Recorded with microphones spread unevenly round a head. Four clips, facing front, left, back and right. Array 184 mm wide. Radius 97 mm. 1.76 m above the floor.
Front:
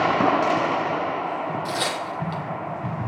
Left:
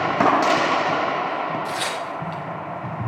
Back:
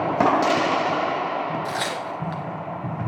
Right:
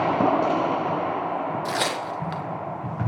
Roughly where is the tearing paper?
Right.